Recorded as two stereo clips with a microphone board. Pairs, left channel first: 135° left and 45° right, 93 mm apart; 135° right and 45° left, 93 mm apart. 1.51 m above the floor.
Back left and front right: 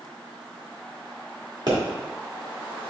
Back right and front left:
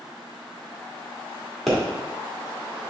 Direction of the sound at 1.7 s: 45° right.